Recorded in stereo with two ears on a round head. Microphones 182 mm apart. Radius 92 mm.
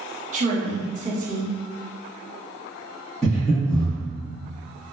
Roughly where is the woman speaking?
Right.